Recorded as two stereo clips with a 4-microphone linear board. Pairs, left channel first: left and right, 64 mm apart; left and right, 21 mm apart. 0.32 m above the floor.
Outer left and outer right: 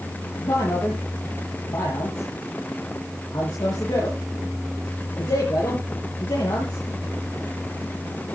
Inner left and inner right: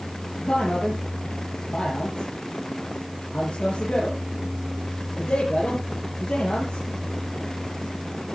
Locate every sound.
0.4 s a man speaking: 80° left, 6 m